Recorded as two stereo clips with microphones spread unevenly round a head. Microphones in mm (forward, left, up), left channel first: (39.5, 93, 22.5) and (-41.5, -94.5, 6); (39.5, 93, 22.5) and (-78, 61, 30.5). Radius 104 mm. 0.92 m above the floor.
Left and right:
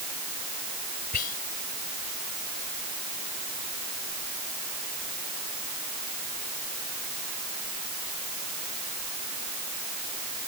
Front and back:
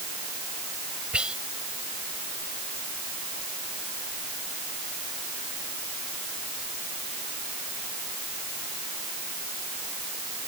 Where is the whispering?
115° left.